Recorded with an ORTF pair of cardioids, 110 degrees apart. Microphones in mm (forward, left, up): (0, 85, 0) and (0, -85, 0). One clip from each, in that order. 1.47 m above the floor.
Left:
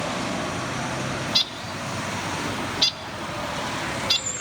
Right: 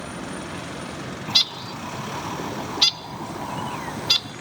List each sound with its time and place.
1.3 s a bird: 15° right, 0.6 m